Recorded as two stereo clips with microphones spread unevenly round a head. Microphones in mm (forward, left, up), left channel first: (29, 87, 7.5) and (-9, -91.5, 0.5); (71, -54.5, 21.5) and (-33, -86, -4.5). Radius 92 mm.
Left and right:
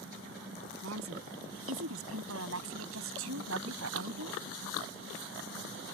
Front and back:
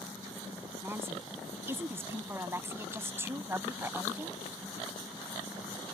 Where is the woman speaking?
95° right.